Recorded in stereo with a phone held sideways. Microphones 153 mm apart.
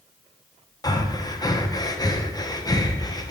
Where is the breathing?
25° left (ahead or behind), 0.8 m.